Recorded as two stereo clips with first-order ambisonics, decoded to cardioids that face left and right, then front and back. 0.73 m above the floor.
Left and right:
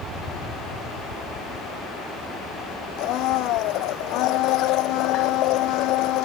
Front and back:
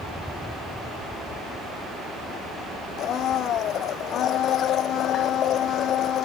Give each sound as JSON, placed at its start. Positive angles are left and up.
{"t": 3.0, "sound": "a blender", "azimuth_deg": 55}